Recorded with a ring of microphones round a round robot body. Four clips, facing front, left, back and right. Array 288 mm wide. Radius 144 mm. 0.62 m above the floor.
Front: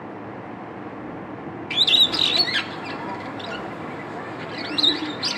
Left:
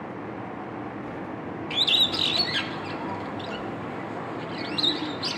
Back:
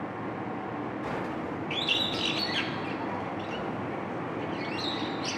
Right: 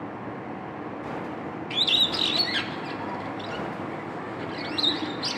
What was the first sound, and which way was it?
A bird, straight ahead.